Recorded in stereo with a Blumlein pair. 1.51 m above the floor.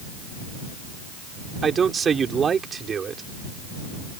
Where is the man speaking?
20° right.